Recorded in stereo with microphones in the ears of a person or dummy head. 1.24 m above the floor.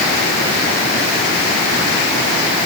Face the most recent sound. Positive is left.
No sound to turn to.